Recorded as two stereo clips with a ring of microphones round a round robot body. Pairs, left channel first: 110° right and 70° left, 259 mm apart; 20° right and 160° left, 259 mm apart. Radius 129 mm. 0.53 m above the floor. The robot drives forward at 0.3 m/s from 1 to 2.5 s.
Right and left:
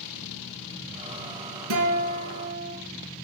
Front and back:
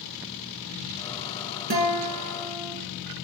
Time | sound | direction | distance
1.7 | a guitar | 100° left | 1.5 m